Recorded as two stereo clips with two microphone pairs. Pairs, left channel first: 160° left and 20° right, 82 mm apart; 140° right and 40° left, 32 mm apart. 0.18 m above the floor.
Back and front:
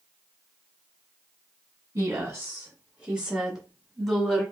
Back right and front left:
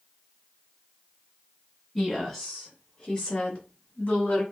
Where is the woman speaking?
40° right, 1.6 m; by 4.4 s 125° right, 2 m.